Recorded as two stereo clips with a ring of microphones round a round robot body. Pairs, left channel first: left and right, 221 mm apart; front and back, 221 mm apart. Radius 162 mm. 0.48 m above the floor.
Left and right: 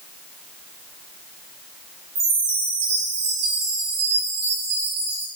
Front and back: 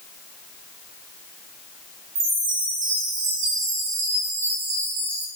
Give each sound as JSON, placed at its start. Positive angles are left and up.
{"t": 2.1, "sound": "a chime", "azimuth_deg": -145, "distance_m": 1.2}